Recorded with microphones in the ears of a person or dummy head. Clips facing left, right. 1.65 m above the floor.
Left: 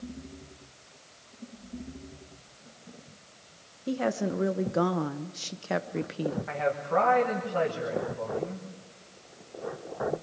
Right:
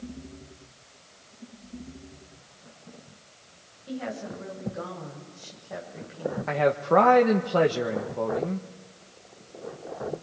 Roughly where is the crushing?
I don't hear crushing.